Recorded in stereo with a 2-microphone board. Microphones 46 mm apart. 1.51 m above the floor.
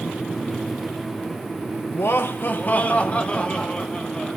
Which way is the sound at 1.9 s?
65° left (ahead or behind).